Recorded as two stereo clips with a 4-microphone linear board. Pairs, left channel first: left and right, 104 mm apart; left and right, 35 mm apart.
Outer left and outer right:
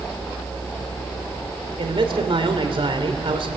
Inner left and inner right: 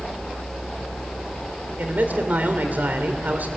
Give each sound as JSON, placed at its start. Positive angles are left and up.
{"t": 1.8, "sound": "a man speaking", "side_deg": -60, "distance_m": 2.5}